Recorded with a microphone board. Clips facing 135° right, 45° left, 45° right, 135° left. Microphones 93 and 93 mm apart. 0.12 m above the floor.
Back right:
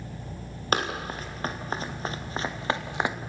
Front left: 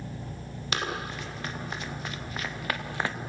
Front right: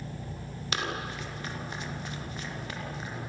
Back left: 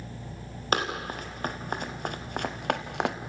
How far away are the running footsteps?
About 5 m.